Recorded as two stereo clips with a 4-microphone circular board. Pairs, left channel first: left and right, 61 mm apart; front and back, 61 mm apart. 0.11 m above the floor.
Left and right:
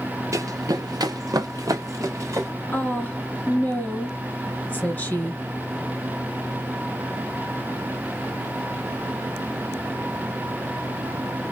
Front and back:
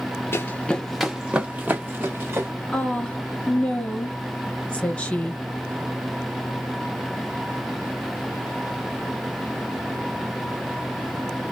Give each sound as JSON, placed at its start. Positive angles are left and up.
{"t": 0.3, "sound": "running footsteps", "azimuth_deg": -50, "distance_m": 0.6}
{"t": 2.7, "sound": "a woman speaking", "azimuth_deg": 60, "distance_m": 1.5}